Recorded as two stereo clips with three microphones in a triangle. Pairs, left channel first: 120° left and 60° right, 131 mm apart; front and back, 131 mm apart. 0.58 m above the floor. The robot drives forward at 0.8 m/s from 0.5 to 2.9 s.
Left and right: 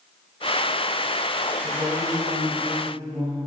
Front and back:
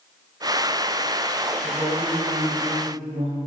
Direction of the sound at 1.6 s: 145° right.